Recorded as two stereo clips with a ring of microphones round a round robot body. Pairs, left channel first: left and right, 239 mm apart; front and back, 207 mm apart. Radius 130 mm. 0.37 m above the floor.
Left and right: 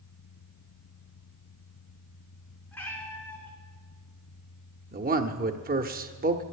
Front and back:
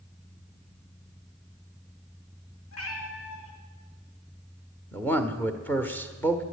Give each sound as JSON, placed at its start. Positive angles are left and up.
{"t": 2.7, "sound": "a cat meowing", "azimuth_deg": 5, "distance_m": 2.5}
{"t": 4.9, "sound": "a man speaking", "azimuth_deg": -75, "distance_m": 1.1}